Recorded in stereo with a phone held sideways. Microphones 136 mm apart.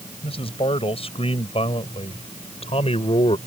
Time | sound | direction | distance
0.2 | a man speaking | 45° left (ahead or behind) | ?